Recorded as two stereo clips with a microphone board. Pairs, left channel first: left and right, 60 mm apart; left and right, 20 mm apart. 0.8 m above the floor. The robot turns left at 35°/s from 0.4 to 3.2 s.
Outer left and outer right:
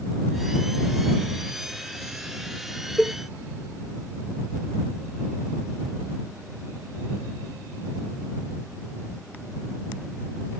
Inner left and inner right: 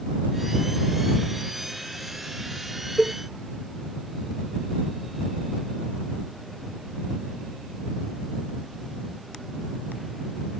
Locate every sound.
3.0 s a cowbell: centre (ahead or behind); by 3.1 s 5° left (ahead or behind)